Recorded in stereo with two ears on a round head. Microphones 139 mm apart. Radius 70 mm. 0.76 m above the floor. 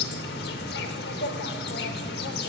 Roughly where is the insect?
Left.